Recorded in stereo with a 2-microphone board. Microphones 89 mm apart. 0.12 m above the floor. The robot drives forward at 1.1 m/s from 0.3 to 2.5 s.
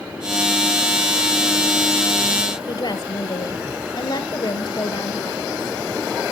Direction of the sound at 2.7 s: 60° left (ahead or behind).